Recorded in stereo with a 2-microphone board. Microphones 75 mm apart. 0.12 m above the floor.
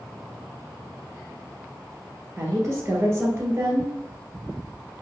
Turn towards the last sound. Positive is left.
turn(degrees=-30)  # may be behind; listen again after turning